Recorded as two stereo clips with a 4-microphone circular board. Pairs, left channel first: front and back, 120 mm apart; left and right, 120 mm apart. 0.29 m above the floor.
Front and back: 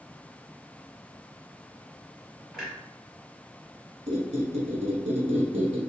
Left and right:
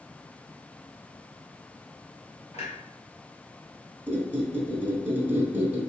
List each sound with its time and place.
2.5 s a clunk: 90° left, 1.7 m
4.1 s a squeak: 165° right, 0.9 m